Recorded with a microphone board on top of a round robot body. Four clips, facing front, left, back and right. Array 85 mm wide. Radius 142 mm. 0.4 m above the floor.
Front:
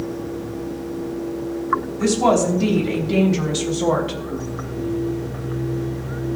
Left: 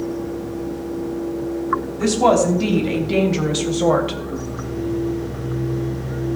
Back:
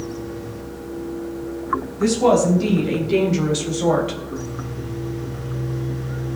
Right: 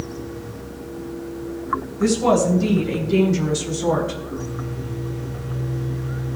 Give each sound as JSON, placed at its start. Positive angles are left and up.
{"t": 2.0, "sound": "a woman speaking", "azimuth_deg": 80, "distance_m": 5.0}